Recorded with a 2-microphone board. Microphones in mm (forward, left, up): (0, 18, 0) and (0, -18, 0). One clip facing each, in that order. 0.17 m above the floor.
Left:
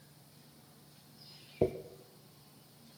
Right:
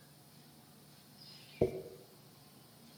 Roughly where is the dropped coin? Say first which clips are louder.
Left 2 dB; centre.